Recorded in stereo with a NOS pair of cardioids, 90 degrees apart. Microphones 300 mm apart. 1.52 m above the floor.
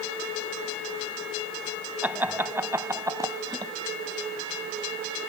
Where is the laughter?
5° right; by 3.7 s 15° right.